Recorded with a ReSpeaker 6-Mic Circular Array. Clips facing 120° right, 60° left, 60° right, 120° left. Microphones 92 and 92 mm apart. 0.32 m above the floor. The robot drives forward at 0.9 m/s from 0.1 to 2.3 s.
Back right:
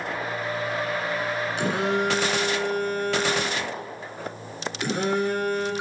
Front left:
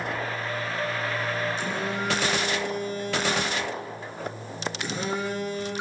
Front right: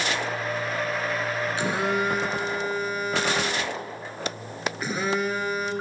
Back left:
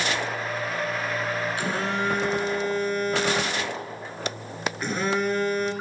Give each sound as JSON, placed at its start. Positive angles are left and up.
{"t": 1.6, "sound": "a phone buzzing", "azimuth_deg": -125, "distance_m": 1.3}